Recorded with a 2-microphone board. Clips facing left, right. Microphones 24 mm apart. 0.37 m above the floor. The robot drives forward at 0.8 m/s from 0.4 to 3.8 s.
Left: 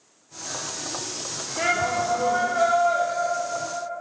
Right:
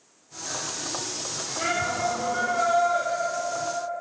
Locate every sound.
1.6 s a shout: 35° left (ahead or behind), 1.0 m; by 3.0 s 20° left (ahead or behind), 1.6 m